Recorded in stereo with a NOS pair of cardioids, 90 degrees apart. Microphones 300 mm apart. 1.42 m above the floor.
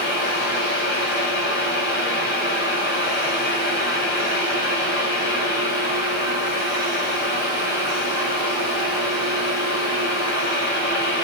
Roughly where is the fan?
Ahead left.